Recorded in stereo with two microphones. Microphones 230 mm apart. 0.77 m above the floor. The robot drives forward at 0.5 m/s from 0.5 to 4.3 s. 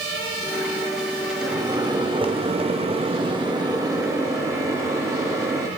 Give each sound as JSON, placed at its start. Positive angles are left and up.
{"t": 1.4, "sound": "a microwave", "side_deg": -15, "distance_m": 0.8}